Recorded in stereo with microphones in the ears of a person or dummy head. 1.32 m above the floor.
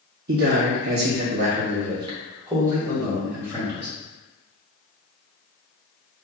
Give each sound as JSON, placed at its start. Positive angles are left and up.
{"t": 0.3, "sound": "a man speaking", "side_deg": -65, "distance_m": 0.8}